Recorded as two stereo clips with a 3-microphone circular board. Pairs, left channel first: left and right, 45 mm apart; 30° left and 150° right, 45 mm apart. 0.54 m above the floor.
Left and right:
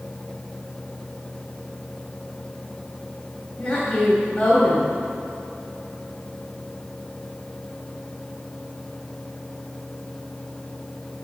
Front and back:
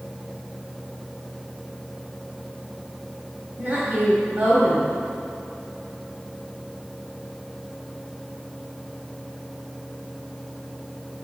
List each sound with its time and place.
3.6 s a woman speaking: 155° left, 2.5 m